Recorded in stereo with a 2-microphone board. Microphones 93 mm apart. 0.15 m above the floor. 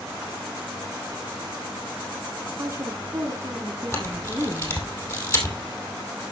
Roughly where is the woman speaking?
Right.